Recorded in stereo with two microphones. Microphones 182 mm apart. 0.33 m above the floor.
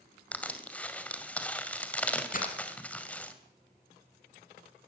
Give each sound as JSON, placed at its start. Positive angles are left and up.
{"t": 0.3, "sound": "crushing", "side_deg": 5, "distance_m": 2.0}
{"t": 2.3, "sound": "breaking glass", "side_deg": 50, "distance_m": 3.5}